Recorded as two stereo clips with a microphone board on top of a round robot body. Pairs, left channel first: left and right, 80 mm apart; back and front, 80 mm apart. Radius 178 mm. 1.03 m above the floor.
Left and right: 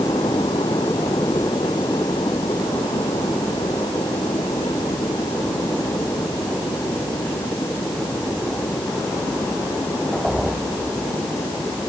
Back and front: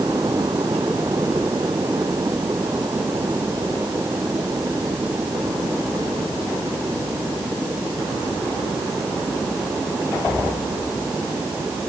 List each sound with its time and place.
Only background noise.